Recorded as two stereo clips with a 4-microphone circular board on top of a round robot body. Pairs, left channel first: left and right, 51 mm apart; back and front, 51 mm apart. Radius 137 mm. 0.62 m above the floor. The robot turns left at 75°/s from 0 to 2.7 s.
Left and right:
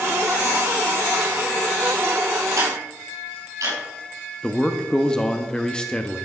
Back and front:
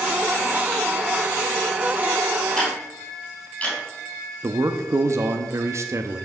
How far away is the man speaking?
About 1.0 m.